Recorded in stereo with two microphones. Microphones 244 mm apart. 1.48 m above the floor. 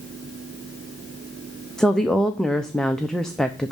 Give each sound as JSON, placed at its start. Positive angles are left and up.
{"t": 1.8, "sound": "a woman speaking", "side_deg": 0, "distance_m": 0.7}